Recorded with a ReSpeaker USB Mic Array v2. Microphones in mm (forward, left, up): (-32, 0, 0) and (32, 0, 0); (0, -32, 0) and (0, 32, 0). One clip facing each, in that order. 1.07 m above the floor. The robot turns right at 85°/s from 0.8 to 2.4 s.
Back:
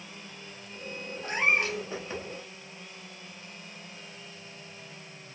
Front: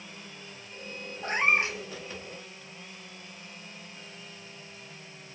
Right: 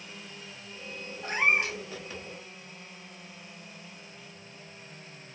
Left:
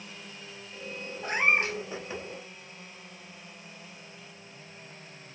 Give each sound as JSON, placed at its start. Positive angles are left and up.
{"t": 1.2, "sound": "a cat meowing", "azimuth_deg": 15, "distance_m": 0.9}